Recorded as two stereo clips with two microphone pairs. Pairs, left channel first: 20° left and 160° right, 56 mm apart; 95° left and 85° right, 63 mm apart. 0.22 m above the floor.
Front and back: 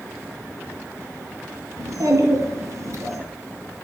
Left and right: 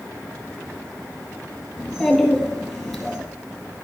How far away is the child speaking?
About 2 m.